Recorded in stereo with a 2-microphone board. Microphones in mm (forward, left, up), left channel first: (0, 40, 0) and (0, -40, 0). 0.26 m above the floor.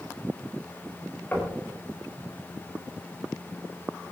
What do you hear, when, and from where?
1.3 s knocking: 25° left (ahead or behind), 5.5 m